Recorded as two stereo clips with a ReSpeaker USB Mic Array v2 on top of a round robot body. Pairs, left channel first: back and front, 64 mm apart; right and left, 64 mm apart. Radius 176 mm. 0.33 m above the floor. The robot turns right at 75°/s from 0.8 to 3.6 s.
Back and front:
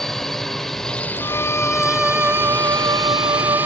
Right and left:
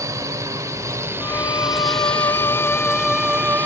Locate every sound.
0.0 s a drone: 95° left; by 3.7 s 45° right
1.2 s a violin: 145° right; by 3.7 s 35° left